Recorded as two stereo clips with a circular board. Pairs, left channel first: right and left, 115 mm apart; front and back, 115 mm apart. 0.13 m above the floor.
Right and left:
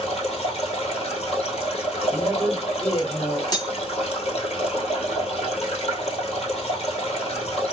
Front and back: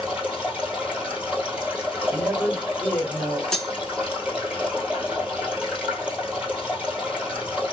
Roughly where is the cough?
I don't hear a cough.